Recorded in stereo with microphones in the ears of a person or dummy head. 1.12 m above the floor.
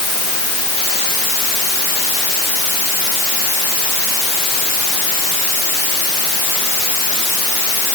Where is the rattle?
I don't hear a rattle.